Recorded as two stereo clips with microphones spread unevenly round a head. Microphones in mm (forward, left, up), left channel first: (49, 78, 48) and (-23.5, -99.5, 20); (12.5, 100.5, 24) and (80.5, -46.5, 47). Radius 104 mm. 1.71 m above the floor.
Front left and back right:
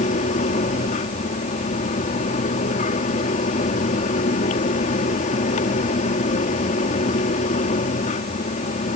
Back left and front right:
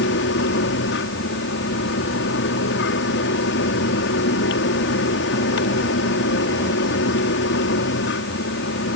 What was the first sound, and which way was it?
A fan, 125° left.